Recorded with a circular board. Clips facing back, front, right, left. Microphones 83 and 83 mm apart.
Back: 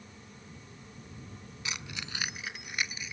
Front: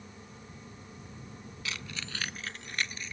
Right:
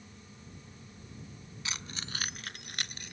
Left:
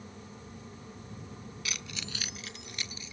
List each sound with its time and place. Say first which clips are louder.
1.6 s keys jangling: even, right 1 dB; 125° right; by 3.1 s 100° right